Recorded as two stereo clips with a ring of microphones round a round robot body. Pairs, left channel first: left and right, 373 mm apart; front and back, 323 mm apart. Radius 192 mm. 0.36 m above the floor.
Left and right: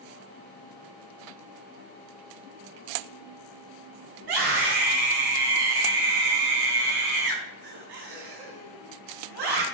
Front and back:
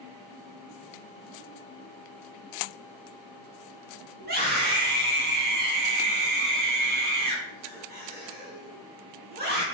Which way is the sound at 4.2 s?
115° right.